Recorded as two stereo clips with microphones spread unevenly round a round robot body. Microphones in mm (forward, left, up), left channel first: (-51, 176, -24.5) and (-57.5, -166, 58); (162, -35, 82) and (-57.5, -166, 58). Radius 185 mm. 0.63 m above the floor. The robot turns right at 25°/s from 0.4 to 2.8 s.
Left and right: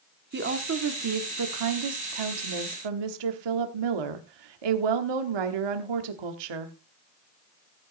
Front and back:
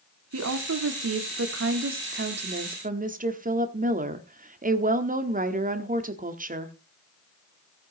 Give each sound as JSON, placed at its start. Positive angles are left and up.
{"t": 0.3, "sound": "a woman speaking", "azimuth_deg": -155, "distance_m": 1.4}